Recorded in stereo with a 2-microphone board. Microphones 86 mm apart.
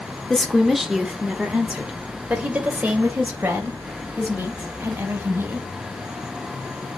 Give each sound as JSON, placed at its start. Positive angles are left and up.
{"t": 0.3, "sound": "a woman speaking", "side_deg": 5, "distance_m": 1.4}